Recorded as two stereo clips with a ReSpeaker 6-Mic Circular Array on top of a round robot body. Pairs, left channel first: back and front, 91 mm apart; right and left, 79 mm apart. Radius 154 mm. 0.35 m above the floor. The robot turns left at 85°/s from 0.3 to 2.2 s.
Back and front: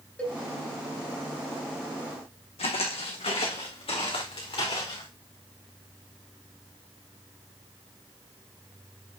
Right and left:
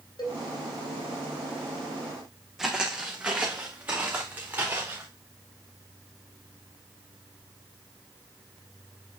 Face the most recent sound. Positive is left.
turn(degrees=150)